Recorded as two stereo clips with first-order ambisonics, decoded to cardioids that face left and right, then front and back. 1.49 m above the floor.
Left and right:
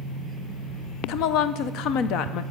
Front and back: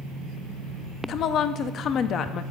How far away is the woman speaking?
About 0.6 m.